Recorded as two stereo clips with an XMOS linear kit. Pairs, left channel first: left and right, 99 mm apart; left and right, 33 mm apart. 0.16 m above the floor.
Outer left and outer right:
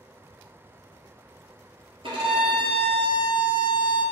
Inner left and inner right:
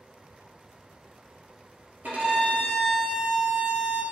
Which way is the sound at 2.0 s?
65° right (ahead or behind).